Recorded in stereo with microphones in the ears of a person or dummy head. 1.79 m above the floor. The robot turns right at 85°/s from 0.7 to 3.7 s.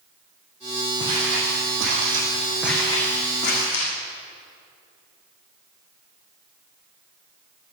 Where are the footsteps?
25° right (ahead or behind), 4 m; by 3.9 s 75° left (ahead or behind), 6.5 m.